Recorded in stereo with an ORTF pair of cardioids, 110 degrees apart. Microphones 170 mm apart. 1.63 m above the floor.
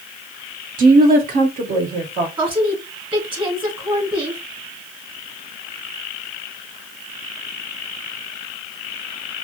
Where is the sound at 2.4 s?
25° right, 2.5 m.